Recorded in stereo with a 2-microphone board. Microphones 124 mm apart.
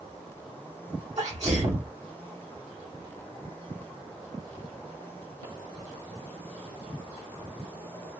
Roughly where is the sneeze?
Right.